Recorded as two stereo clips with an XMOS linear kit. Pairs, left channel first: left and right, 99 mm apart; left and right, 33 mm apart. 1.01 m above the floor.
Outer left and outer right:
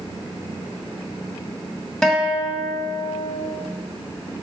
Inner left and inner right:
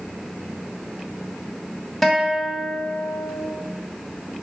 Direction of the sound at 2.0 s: 10° left (ahead or behind).